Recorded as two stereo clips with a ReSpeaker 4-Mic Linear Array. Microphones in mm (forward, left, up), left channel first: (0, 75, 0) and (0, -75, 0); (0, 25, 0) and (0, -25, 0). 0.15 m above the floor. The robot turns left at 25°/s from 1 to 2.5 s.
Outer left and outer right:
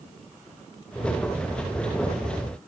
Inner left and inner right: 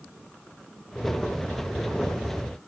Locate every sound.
Only background noise.